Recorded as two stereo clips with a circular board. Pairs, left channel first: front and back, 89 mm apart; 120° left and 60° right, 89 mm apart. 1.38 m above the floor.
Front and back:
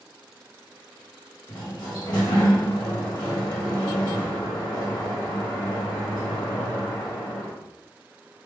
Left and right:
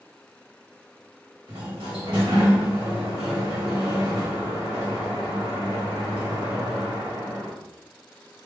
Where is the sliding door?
40° right, 2 m.